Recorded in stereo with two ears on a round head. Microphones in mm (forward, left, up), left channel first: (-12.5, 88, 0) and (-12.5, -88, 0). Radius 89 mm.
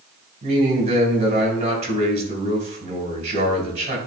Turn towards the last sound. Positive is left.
turn(degrees=-35)  # may be behind; listen again after turning